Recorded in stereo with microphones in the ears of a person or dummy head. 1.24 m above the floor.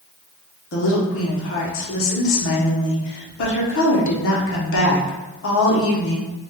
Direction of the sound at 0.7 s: 65° left (ahead or behind).